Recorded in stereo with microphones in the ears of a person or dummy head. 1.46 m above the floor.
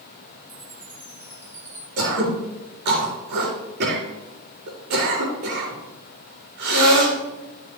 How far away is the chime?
About 4.5 m.